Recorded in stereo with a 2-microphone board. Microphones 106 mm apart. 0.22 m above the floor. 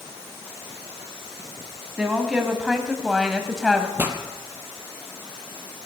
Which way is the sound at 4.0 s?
20° right (ahead or behind).